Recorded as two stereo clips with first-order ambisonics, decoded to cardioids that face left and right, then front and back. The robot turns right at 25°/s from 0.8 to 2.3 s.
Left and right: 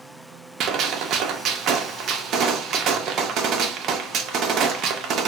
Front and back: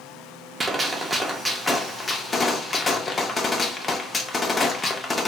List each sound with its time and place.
0.6 s a gunshot: 105° right, 0.5 m; by 5.3 s 70° right, 0.5 m